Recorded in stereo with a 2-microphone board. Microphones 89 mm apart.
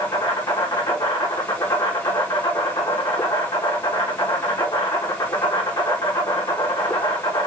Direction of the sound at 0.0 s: 60° left (ahead or behind).